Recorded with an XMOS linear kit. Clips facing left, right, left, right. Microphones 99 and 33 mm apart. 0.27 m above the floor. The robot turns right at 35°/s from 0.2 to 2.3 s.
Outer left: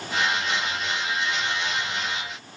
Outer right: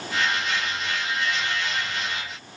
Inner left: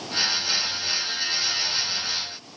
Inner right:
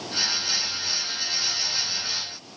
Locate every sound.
Only background noise.